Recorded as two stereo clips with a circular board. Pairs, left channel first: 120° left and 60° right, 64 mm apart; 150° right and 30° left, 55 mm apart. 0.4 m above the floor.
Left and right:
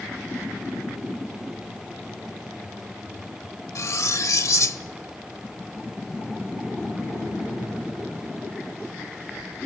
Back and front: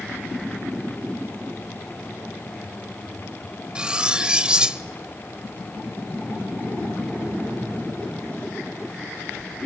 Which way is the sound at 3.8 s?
100° left.